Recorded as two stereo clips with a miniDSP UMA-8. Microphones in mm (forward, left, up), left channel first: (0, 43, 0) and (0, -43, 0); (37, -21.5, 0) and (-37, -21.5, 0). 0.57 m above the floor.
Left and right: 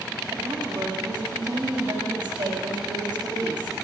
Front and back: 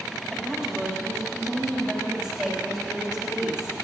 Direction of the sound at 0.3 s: 85° right.